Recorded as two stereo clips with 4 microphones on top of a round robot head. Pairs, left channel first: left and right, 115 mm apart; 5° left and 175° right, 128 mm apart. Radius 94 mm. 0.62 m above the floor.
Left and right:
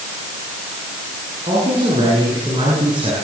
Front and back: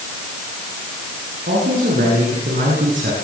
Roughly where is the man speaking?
Behind right.